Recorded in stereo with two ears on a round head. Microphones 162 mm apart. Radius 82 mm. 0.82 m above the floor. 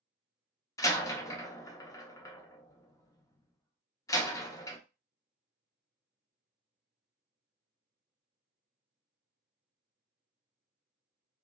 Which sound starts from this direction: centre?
A door slam, at 0.8 s.